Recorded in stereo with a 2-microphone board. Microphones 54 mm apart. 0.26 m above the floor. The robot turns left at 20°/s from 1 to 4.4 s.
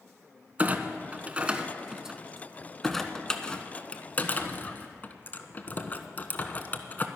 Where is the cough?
I don't hear a cough.